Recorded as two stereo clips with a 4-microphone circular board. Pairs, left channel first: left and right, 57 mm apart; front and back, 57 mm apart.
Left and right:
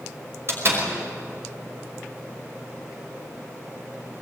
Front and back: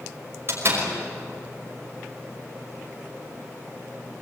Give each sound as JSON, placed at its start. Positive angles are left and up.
{"t": 0.5, "sound": "a door slam", "azimuth_deg": -130, "distance_m": 5.5}